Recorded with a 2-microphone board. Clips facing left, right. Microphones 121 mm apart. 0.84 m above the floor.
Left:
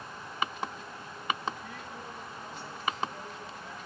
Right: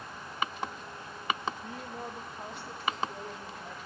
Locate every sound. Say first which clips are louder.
1.6 s a woman speaking: right 3 dB; 25° right (ahead or behind), 0.7 m; by 3.8 s 80° right, 3 m